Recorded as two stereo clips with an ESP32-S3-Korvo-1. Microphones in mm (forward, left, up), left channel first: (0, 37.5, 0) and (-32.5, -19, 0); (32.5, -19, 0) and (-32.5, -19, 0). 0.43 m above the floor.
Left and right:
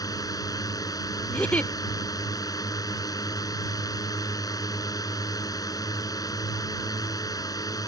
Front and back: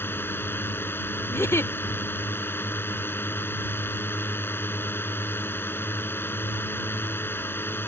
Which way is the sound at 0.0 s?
55° left.